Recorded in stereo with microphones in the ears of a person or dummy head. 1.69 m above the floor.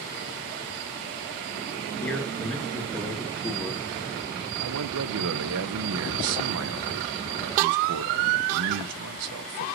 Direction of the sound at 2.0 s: 5° left (ahead or behind).